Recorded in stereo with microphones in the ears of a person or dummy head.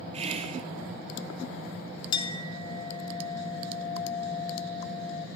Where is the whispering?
35° right (ahead or behind), 0.6 m.